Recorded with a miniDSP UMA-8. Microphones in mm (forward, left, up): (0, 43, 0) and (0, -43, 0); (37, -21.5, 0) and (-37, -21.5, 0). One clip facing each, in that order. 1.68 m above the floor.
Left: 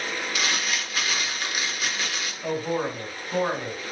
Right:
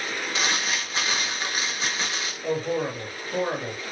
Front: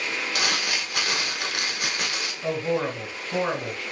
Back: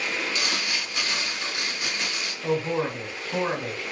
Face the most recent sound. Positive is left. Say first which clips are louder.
# right 1 dB, even
turn(degrees=30)